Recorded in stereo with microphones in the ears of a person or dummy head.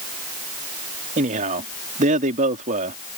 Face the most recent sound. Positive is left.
turn(degrees=-40)  # may be behind; listen again after turning